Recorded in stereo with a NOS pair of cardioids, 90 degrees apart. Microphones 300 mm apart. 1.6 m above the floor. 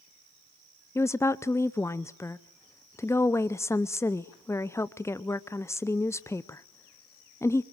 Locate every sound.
0.9 s a woman speaking: 10° left, 0.6 m